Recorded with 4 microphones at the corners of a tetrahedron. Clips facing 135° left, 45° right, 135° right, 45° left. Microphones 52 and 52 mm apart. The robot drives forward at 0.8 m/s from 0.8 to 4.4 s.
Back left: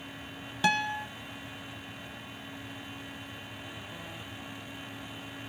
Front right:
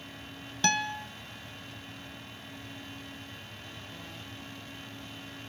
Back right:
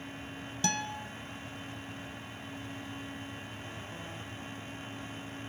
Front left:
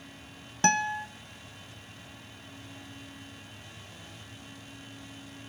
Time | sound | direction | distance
0.6 | a guitar | 55° left | 0.6 m